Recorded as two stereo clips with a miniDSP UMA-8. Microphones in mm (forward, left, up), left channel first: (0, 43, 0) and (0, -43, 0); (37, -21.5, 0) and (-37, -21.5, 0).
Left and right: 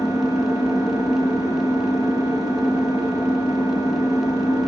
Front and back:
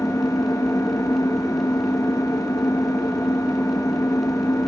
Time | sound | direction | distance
0.0 | an engine running | 45° right | 3 m